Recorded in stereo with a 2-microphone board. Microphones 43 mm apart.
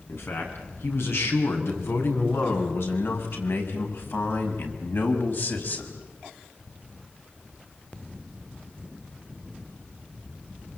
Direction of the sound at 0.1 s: 80° left.